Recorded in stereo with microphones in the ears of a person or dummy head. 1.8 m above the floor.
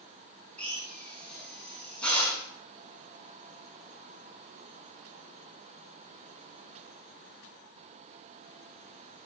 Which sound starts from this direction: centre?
A drill, at 0.6 s.